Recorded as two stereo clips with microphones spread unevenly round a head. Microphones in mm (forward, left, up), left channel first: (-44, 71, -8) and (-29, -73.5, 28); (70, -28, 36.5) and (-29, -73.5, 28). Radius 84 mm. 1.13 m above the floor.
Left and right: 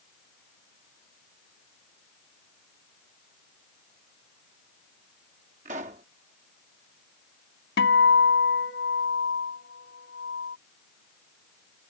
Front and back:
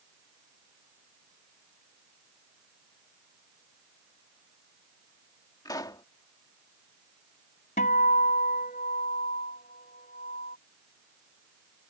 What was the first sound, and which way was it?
A pop, 30° right.